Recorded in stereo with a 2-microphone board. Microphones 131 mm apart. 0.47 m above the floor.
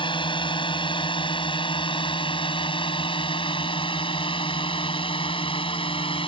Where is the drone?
40° left (ahead or behind).